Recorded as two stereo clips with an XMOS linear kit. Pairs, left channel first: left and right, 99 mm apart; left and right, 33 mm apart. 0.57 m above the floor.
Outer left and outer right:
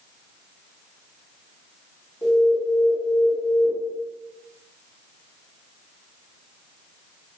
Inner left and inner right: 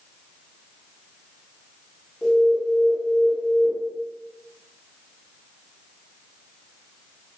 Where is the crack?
I don't hear a crack.